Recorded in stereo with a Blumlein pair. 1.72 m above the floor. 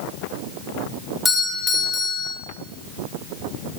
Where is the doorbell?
10° left, 7 m.